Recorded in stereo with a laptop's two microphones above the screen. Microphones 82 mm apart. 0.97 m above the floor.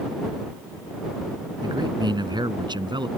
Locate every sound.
1.6 s a man speaking: 60° right (ahead or behind); by 3.1 s 65° right (ahead or behind)